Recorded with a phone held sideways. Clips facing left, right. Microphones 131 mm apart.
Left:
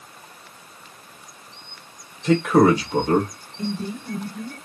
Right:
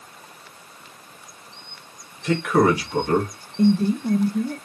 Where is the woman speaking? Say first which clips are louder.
Right 10 dB; 75° right (ahead or behind), 0.6 m.